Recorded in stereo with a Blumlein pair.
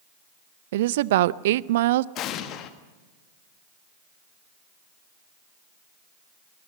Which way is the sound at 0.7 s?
55° right.